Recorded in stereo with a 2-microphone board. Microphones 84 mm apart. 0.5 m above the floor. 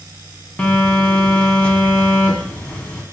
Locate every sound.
0.6 s a phone buzzing: 15° left (ahead or behind), 0.5 m